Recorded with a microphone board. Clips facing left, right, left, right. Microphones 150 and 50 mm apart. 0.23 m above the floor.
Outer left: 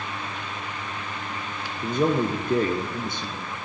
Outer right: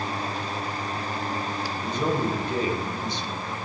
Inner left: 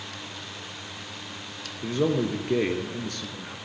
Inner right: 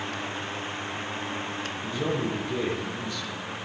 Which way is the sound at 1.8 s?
55° left (ahead or behind).